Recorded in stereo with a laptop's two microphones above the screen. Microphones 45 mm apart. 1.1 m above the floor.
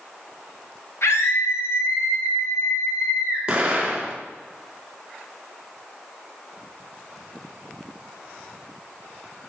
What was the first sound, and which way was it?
A scream, 75° left (ahead or behind).